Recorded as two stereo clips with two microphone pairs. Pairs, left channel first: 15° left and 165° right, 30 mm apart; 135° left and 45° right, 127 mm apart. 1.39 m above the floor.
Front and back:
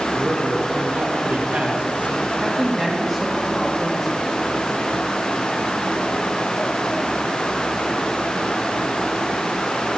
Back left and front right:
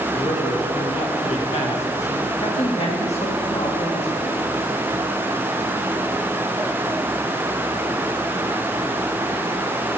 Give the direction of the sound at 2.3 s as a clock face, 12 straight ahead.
9 o'clock.